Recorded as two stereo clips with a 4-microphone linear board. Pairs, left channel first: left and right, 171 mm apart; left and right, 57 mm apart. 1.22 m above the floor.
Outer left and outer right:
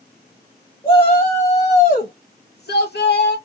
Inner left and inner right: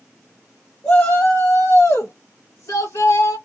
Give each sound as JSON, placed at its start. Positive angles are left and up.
{"t": 0.8, "sound": "a shout", "side_deg": 30, "distance_m": 1.1}